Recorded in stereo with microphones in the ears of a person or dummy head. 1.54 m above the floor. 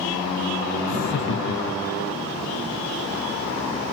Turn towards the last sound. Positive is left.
turn(degrees=85)